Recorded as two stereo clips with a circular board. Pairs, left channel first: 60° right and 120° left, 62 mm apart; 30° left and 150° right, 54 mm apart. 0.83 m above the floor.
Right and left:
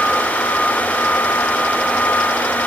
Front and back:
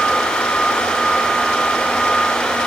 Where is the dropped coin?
No dropped coin in this recording.